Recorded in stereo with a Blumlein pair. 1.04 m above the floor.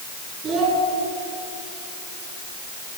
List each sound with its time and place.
0.4 s a child speaking: 25° right, 8 m